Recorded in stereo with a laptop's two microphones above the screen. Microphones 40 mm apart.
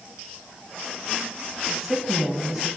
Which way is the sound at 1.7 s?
5° left (ahead or behind).